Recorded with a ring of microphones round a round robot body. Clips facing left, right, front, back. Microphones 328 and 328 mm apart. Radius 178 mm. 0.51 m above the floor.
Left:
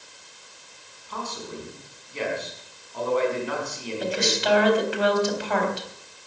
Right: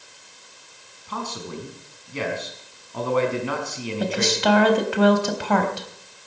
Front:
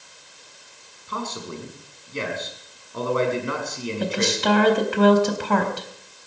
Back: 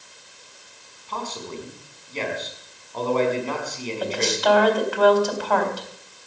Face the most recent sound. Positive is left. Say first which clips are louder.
# right 3 dB, even
turn(degrees=-60)